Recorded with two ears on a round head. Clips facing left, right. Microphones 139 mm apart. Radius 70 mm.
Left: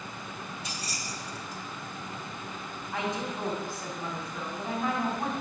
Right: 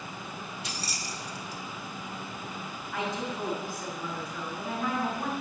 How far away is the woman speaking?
About 3.5 m.